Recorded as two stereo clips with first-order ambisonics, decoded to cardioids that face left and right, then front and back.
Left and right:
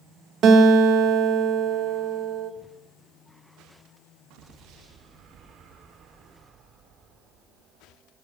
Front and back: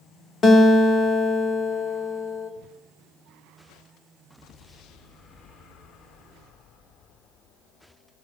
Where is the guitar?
55° right, 0.6 m.